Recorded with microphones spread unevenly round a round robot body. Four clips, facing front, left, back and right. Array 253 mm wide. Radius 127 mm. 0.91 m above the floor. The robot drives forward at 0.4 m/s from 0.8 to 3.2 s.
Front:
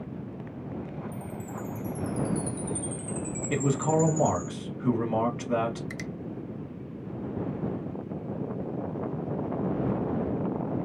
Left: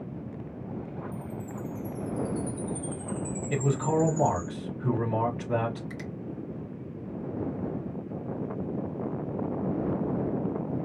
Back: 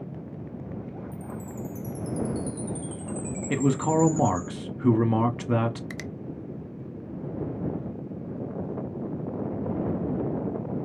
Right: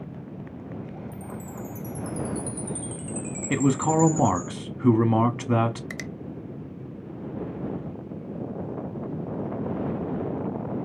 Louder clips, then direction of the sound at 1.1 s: Even, even; 95° right.